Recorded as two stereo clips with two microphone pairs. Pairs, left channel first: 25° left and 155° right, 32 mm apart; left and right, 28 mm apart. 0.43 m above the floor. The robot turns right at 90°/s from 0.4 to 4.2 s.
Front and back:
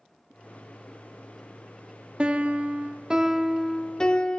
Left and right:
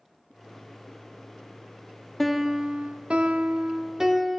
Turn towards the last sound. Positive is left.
turn(degrees=-10)